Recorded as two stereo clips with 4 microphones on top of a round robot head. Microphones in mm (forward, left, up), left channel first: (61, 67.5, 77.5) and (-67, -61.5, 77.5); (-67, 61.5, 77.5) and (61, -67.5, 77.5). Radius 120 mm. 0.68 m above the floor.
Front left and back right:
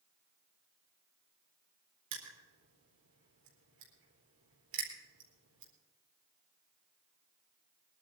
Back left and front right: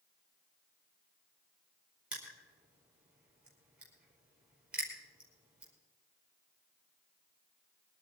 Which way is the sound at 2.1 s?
130° right.